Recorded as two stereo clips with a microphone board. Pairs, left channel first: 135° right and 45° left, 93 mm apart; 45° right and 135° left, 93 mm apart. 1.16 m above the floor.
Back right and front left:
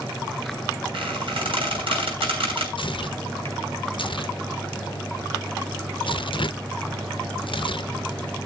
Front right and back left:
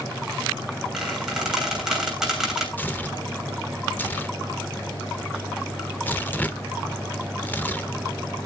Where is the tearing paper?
115° right, 0.8 m.